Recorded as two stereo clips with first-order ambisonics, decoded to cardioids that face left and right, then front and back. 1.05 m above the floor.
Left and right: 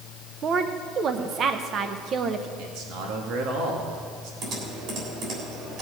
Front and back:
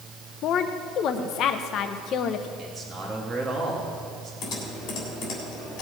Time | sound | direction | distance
0.4 | a woman speaking | 35° right | 0.6 m
2.6 | a man speaking | 105° right | 1.9 m
4.4 | typing on a keyboard | 40° right | 3.5 m